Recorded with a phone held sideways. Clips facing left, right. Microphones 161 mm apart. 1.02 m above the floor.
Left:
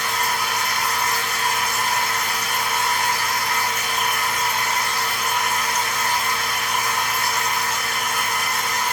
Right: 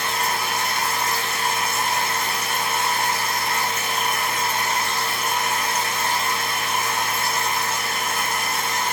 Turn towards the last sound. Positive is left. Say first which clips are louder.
# even
turn(degrees=-25)  # may be behind; listen again after turning